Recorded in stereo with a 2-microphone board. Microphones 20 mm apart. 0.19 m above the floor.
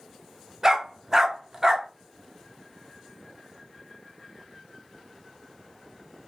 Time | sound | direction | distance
0.6 | a dog barking | 25° right (ahead or behind) | 0.8 m